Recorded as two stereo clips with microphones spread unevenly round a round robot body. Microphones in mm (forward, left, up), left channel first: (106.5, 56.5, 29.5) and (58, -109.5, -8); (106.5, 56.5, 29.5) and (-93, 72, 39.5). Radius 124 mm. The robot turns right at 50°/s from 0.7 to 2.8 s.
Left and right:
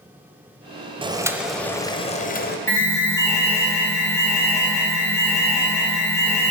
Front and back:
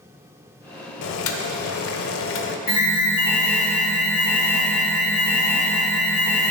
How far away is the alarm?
About 2 m.